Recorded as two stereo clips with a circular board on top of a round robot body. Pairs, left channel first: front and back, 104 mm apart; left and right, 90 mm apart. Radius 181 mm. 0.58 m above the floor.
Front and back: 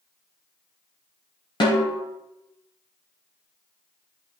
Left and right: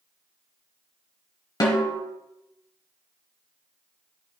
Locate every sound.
1.6 s a snare drum: 45° left, 1.0 m